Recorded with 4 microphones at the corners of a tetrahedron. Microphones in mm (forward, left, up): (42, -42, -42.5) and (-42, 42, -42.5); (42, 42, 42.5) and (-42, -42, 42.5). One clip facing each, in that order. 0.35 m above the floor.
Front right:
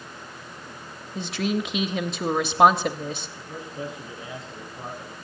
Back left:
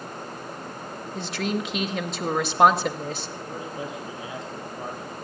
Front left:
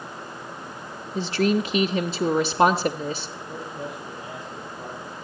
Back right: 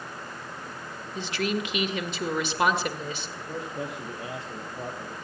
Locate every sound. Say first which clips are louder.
1.1 s a woman speaking: front right 2 dB, front left 7 dB; 45° left, 1.1 m
3.4 s a man speaking: back left 2 dB, even; 155° right, 8.5 m